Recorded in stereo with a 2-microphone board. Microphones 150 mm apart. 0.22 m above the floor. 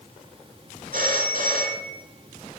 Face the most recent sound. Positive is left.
turn(degrees=-65)  # may be behind; listen again after turning